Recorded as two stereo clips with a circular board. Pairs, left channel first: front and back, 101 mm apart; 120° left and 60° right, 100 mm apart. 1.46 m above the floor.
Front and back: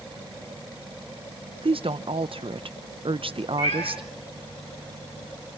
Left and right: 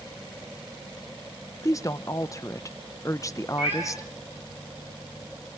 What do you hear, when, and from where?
1.6 s a woman speaking: 175° left, 0.7 m
3.6 s a cat meowing: 10° left, 8 m